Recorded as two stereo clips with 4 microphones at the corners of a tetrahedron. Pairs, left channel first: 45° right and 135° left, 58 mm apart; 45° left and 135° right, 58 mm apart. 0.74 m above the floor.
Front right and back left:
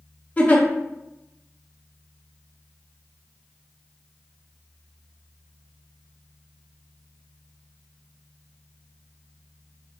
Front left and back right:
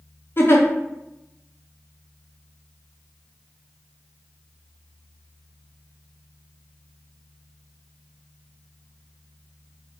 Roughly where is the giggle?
Ahead.